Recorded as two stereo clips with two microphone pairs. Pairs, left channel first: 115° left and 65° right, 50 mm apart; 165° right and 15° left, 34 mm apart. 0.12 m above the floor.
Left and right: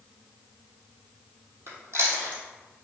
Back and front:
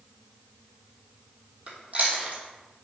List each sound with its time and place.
1.7 s chewing: 30° right, 1.4 m